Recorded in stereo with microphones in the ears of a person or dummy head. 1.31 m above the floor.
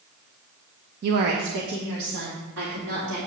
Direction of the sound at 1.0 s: 50° right (ahead or behind).